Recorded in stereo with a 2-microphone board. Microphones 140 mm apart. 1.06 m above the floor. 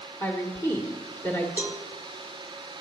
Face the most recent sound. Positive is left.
turn(degrees=-15)  # may be behind; listen again after turning